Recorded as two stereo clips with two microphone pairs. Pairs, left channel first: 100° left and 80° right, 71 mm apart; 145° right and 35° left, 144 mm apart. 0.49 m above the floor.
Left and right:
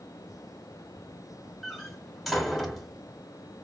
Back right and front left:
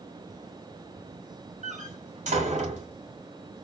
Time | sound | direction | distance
1.6 | a door slam | 10° left | 1.9 m